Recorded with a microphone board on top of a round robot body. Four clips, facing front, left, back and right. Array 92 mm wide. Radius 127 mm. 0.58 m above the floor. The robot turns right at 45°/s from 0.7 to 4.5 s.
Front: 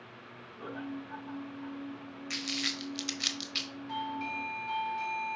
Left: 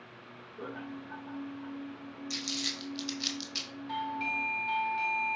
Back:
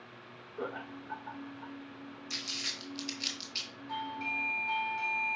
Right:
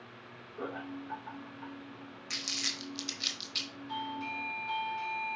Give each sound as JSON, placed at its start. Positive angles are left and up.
{"t": 0.6, "sound": "laughter", "azimuth_deg": -145, "distance_m": 2.5}
{"t": 2.3, "sound": "crumpling", "azimuth_deg": -40, "distance_m": 0.9}
{"t": 3.9, "sound": "a doorbell", "azimuth_deg": 80, "distance_m": 2.0}